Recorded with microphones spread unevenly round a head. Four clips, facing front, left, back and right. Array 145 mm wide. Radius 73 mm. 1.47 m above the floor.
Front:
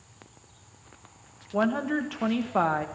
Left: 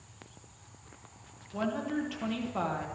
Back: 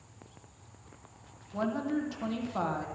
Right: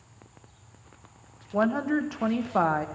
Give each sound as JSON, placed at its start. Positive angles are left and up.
{"t": 1.5, "sound": "a woman speaking", "azimuth_deg": -40, "distance_m": 1.5}